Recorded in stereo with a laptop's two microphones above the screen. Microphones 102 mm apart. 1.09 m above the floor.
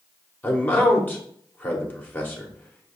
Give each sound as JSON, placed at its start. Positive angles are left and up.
{"t": 0.4, "sound": "a man speaking", "side_deg": 20, "distance_m": 1.0}